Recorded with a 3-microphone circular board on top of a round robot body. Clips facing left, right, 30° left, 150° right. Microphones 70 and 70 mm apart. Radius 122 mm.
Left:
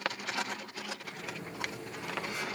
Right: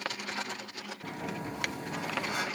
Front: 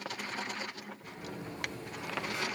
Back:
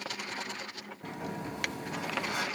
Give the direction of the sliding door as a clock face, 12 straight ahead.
4 o'clock.